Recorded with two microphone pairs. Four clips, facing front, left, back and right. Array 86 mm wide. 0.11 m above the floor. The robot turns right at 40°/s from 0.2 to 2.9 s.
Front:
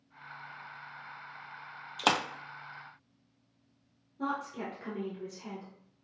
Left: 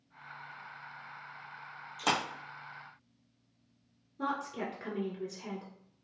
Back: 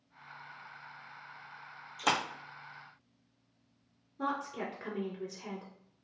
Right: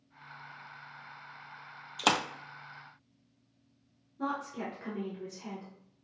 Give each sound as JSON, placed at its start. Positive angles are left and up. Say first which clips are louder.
{"t": 2.0, "sound": "a splash", "louder": "right 3 dB, front 2 dB", "azimuth_deg": -40, "distance_m": 0.8}
{"t": 4.2, "sound": "a woman speaking", "louder": "even, even", "azimuth_deg": 145, "distance_m": 1.4}